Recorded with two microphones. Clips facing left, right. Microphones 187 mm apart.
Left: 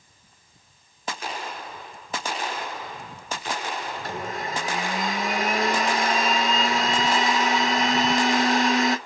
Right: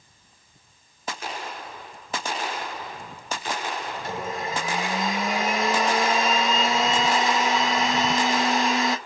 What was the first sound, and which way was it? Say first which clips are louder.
A blender: right 1 dB; centre (ahead or behind).